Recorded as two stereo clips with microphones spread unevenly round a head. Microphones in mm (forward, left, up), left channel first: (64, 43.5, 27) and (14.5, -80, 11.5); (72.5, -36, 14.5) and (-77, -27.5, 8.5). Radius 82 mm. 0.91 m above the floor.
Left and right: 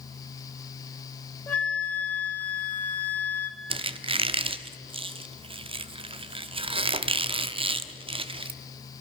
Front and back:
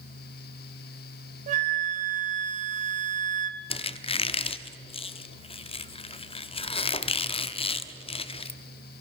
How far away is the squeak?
About 1.0 m.